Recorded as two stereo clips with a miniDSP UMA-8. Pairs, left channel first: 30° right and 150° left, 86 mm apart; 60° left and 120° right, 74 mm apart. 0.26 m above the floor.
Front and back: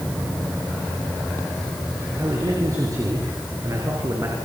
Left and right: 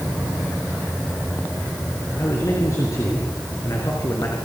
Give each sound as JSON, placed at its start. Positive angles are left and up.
{"t": 2.2, "sound": "a man speaking", "azimuth_deg": 105, "distance_m": 6.0}